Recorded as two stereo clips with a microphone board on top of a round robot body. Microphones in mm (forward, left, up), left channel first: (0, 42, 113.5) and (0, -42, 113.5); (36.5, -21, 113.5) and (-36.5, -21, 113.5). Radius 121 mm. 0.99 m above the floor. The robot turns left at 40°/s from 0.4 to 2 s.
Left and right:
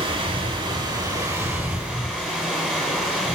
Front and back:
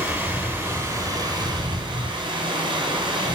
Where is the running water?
110° right, 3.5 m; by 3.3 s 170° right, 3.5 m.